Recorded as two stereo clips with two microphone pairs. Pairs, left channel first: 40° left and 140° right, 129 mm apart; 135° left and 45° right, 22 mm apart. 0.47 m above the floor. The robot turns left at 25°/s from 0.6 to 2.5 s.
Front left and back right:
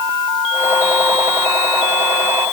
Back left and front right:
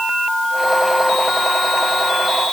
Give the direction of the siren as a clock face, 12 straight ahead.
I don't hear a siren.